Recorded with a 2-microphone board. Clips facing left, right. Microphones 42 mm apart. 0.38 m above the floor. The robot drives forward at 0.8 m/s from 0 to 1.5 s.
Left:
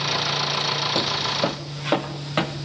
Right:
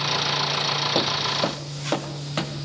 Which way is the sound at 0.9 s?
15° right (ahead or behind).